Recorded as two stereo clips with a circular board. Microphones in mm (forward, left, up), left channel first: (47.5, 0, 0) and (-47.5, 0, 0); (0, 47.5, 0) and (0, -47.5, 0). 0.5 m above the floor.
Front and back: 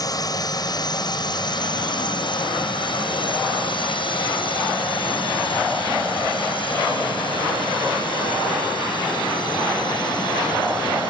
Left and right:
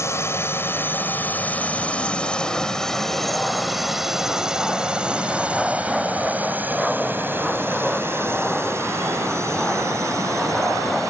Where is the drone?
35° left; by 11.1 s 35° right.